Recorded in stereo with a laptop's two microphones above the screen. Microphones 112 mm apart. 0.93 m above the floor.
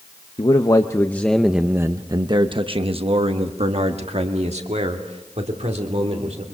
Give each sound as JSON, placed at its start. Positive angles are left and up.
{"t": 0.4, "sound": "a man speaking", "side_deg": 45, "distance_m": 0.9}